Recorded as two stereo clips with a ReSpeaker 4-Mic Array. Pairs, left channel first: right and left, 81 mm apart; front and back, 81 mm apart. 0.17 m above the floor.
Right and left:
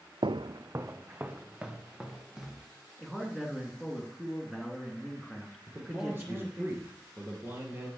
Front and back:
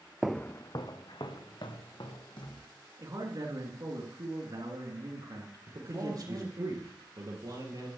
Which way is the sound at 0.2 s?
100° left.